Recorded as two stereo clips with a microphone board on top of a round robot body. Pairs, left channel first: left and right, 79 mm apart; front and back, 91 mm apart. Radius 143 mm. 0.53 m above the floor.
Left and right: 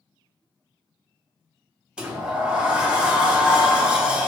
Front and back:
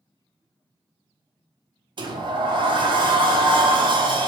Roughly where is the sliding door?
Behind.